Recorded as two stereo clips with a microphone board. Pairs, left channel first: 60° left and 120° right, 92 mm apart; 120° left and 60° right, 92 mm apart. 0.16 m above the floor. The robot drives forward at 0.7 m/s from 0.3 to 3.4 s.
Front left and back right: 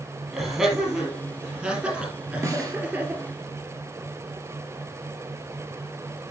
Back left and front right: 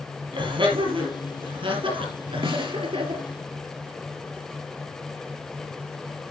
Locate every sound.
0.3 s laughter: 35° right, 5 m; by 3.2 s 55° right, 3.5 m
2.4 s a snare drum: 65° right, 2 m; by 2.8 s 75° right, 2 m